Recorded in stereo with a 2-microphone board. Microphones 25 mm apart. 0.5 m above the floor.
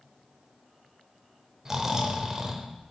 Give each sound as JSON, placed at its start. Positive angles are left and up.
{"t": 1.6, "sound": "snoring", "side_deg": -20, "distance_m": 0.7}